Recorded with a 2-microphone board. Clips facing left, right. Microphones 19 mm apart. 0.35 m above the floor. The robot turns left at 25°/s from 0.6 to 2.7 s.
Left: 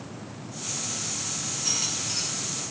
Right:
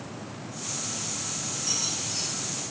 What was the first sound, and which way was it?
A squeak, 35° left (ahead or behind).